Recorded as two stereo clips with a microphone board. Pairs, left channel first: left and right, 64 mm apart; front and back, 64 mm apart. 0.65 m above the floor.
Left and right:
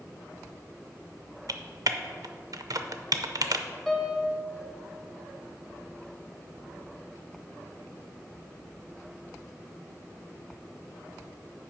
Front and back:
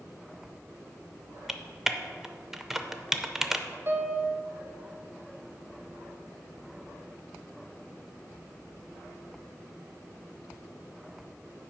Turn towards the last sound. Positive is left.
turn(degrees=170)